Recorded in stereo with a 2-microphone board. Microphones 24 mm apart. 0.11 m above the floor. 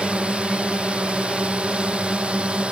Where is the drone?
60° right (ahead or behind); by 2.7 s 55° right (ahead or behind).